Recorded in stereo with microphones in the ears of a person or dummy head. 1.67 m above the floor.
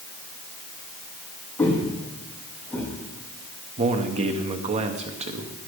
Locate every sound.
1.6 s footsteps: 15° left (ahead or behind), 4.5 m; by 2.9 s 10° left (ahead or behind), 5 m
3.8 s a man speaking: 35° right (ahead or behind), 1.0 m